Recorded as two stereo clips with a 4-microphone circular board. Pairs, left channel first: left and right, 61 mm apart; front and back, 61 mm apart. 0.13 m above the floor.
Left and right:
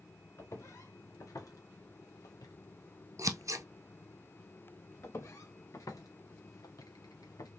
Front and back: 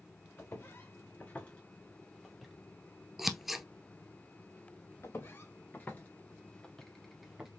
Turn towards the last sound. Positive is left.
turn(degrees=100)